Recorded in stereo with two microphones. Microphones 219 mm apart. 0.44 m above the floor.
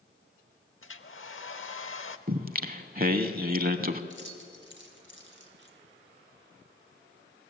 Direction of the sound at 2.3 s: 40° right (ahead or behind).